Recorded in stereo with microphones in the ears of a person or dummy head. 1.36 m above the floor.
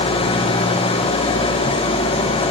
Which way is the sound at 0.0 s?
35° left (ahead or behind).